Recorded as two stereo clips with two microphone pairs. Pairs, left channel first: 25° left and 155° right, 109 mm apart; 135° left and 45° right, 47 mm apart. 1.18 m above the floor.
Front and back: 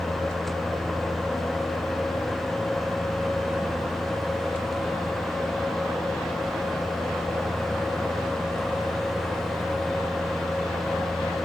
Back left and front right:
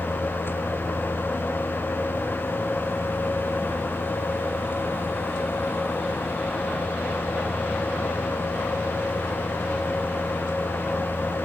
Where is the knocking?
I don't hear knocking.